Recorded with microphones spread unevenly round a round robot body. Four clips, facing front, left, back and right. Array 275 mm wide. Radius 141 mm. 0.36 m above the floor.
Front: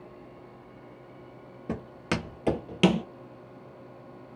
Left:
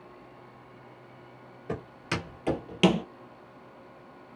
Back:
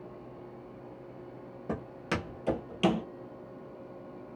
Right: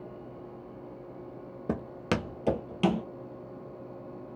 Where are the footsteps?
60° right, 0.7 m; by 3.0 s 45° left, 0.6 m.